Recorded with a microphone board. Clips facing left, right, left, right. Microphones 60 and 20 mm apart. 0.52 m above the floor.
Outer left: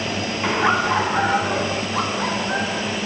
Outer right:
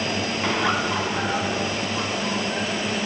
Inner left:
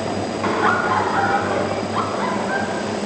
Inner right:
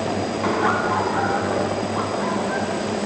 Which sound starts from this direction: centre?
Laughter, at 0.4 s.